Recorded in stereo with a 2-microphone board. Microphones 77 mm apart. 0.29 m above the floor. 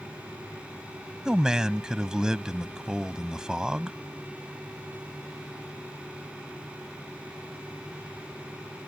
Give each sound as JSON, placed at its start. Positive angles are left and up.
{"t": 1.2, "sound": "a man speaking", "side_deg": -10}